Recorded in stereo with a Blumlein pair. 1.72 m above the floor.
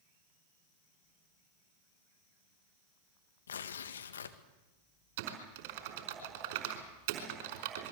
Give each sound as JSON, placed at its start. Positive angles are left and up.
{"t": 3.5, "sound": "tearing paper", "azimuth_deg": 65, "distance_m": 1.8}
{"t": 5.2, "sound": "typing on a keyboard", "azimuth_deg": -50, "distance_m": 5.0}